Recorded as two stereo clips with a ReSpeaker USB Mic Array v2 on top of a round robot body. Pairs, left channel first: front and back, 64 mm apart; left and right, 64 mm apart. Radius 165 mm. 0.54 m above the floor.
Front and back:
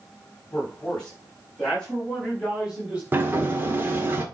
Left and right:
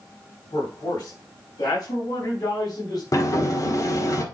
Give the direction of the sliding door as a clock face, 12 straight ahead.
8 o'clock.